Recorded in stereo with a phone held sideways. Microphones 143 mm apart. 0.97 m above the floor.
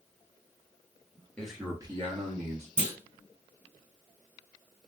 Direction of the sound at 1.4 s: 10° left (ahead or behind).